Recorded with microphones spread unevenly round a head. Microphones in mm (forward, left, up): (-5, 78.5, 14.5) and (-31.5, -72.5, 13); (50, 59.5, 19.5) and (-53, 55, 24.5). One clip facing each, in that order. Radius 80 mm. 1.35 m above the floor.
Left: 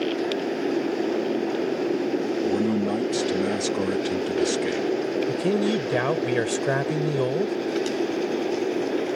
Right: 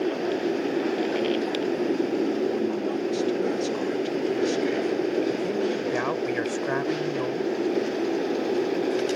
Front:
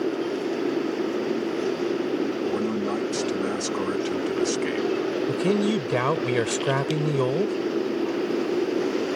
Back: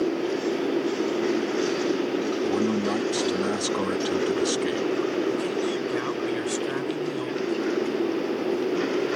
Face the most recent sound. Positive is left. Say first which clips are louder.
# left 3 dB, front 3 dB
turn(degrees=30)